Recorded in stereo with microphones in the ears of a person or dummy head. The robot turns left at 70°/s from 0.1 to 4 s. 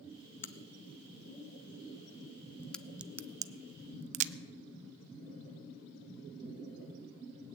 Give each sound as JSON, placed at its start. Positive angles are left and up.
{"t": 0.4, "sound": "a crack", "side_deg": 10, "distance_m": 0.6}